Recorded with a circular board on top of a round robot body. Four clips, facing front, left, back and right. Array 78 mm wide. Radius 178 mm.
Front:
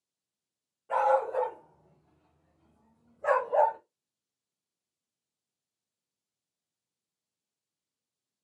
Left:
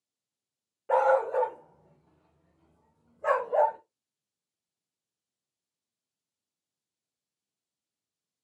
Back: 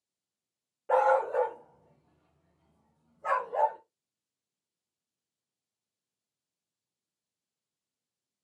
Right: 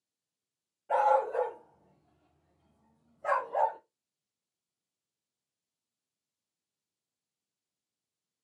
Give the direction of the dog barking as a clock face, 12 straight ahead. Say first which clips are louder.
Left 2 dB, back 1 dB; 8 o'clock.